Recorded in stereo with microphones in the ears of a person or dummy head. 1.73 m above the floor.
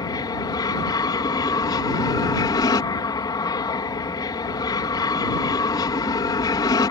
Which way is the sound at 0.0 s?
20° left (ahead or behind).